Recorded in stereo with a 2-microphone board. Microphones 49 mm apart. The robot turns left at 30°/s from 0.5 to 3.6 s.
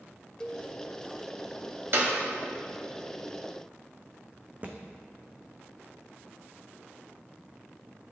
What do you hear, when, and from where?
0.4 s a cowbell: 15° left (ahead or behind), 1.0 m; by 0.7 s 20° left (ahead or behind), 1.0 m
1.9 s a clap: 50° right (ahead or behind), 2 m; by 2.1 s 45° right (ahead or behind), 2 m
4.6 s a thud: 30° right (ahead or behind), 1.6 m